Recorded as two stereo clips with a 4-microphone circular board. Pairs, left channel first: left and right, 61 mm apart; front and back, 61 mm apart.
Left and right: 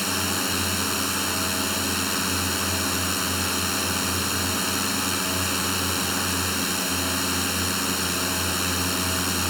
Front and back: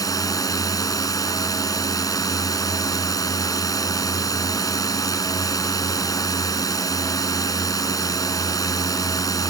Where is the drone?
Straight ahead.